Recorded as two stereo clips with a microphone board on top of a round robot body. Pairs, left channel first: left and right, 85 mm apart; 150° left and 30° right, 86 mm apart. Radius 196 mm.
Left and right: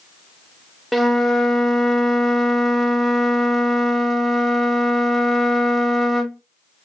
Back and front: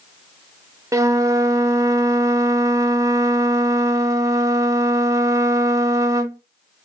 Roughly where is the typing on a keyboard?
I don't hear typing on a keyboard.